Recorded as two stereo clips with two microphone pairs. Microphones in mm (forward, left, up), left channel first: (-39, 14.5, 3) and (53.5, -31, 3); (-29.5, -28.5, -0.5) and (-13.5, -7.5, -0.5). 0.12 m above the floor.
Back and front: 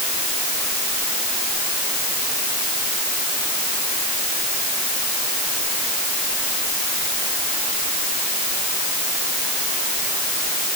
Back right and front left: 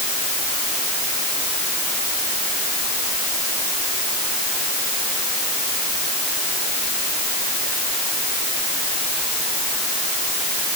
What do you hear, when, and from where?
Only background noise.